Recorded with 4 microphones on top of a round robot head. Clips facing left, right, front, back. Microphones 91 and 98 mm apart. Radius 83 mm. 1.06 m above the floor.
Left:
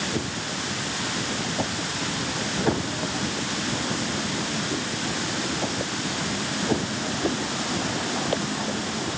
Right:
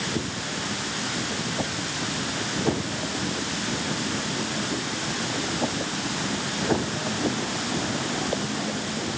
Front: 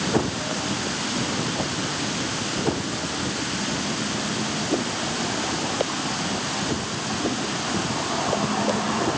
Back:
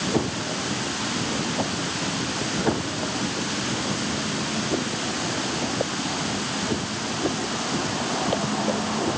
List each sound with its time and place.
Only background noise.